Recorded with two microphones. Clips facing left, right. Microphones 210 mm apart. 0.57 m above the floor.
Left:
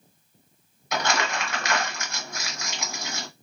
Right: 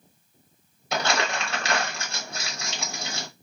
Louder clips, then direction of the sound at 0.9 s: Right 1 dB; 30° right (ahead or behind).